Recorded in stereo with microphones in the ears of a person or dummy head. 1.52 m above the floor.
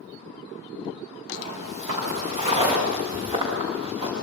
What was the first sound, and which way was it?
Footsteps, 30° right (ahead or behind).